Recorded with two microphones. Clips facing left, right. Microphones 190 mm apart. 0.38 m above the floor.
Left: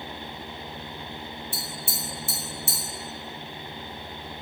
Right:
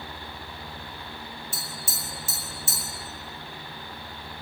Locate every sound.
1.5 s tapping: 55° left (ahead or behind), 1.3 m